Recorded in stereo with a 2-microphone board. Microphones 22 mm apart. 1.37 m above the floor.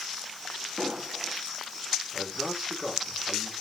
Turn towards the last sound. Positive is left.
turn(degrees=-5)  # may be behind; listen again after turning